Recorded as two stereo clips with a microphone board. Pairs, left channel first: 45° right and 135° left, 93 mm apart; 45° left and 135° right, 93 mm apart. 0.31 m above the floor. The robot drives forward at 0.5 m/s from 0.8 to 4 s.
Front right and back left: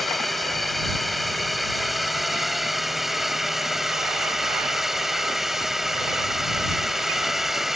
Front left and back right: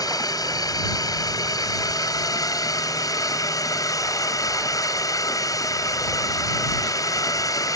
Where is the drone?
40° left; by 7.8 s 50° left.